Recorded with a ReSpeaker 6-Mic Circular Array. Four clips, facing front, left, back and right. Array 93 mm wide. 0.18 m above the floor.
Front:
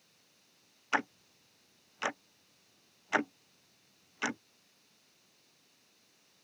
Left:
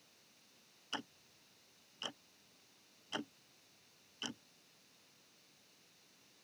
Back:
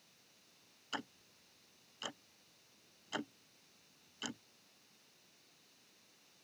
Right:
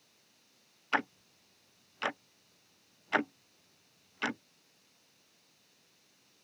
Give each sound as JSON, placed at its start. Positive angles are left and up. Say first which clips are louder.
{"t": 0.9, "sound": "ticking", "louder": "right 14 dB, front 12 dB", "azimuth_deg": -45}